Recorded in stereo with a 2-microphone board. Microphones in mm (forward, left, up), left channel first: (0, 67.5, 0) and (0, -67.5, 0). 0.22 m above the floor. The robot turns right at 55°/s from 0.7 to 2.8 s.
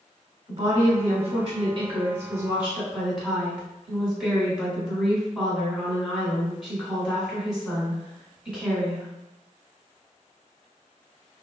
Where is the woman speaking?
130° right, 1.5 m; by 9.1 s 15° right, 1.5 m.